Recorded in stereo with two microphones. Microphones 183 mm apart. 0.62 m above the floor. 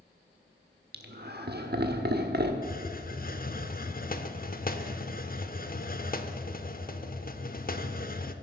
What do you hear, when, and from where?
0.9 s laughter: 60° right (ahead or behind), 1.2 m
2.6 s a hiss: 50° left (ahead or behind), 0.8 m